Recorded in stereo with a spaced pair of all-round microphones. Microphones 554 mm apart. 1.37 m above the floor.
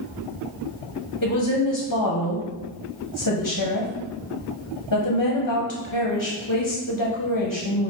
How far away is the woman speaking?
About 0.7 m.